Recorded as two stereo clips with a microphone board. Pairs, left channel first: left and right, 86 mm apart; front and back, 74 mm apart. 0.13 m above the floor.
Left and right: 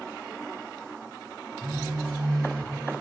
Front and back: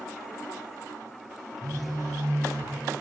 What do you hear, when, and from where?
1.6 s a phone buzzing: 155° right, 1.6 m